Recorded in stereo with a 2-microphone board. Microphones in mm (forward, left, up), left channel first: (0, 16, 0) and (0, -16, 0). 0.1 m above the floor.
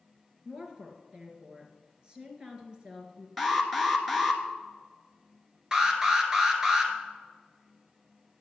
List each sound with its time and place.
0.5 s a woman speaking: 30° right (ahead or behind), 1.9 m
3.4 s an alarm: 5° right (ahead or behind), 1.3 m
5.7 s an alarm: 20° right (ahead or behind), 1.7 m